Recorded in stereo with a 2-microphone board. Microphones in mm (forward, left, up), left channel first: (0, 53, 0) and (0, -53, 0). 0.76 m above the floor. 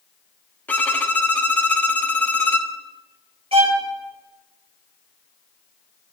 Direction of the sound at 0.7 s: 15° left (ahead or behind).